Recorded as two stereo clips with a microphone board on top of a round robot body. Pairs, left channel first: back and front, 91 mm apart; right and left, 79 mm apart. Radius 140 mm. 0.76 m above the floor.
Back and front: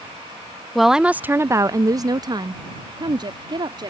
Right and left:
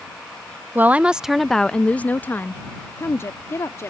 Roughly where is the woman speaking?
Left.